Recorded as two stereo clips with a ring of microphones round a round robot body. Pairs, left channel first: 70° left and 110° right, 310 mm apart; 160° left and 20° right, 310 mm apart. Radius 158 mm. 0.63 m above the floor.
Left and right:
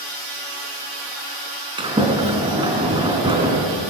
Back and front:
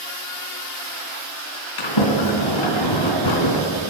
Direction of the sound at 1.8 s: 170° left.